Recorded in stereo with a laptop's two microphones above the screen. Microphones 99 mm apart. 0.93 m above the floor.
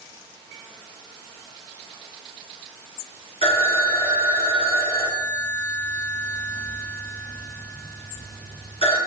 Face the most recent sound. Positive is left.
turn(degrees=80)